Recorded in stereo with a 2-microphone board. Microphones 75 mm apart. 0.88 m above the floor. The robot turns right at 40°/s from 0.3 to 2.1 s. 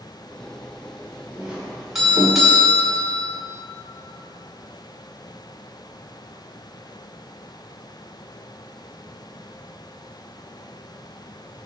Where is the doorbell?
20° right (ahead or behind), 1.6 m; by 3.3 s centre (ahead or behind), 1.6 m.